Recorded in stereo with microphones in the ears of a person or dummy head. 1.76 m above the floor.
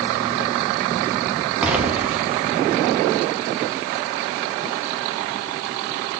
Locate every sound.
1.6 s an explosion: 5° right (ahead or behind), 0.6 m